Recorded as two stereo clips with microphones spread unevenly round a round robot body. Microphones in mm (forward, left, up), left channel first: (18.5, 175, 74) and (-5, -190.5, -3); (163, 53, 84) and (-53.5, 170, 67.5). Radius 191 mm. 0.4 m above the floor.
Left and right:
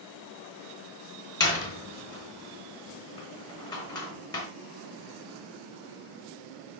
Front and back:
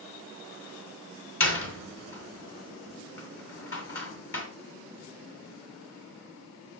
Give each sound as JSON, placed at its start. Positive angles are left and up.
{"t": 1.4, "sound": "a door slam", "azimuth_deg": 5, "distance_m": 3.0}